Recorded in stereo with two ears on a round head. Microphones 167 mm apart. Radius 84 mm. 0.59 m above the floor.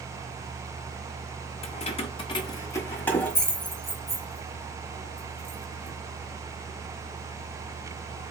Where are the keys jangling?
35° left (ahead or behind), 0.8 m; by 6.0 s 10° right (ahead or behind), 2.5 m.